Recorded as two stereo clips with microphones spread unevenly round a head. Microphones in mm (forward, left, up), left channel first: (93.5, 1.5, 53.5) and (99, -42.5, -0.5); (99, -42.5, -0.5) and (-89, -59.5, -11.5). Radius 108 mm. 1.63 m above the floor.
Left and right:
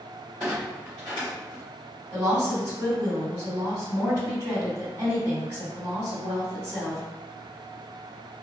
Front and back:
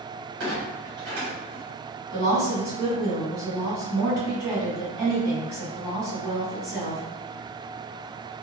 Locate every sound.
0.4 s a clunk: 145° left, 1.3 m
2.1 s a woman speaking: 125° left, 1.9 m